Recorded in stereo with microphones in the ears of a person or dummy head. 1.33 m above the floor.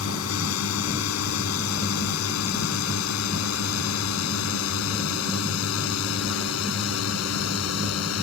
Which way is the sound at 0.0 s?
80° left.